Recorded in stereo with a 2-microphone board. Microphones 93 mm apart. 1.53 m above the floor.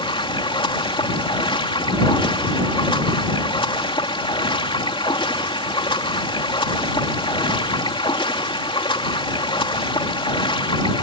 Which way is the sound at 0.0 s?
75° left (ahead or behind).